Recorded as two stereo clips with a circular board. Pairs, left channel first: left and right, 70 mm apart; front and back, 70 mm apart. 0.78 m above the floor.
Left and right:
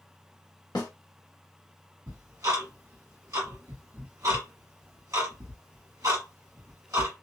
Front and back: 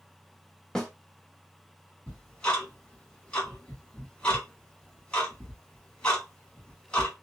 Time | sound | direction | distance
0.8 | a snare drum | 80° left | 1.1 m
2.1 | ticking | 70° right | 1.5 m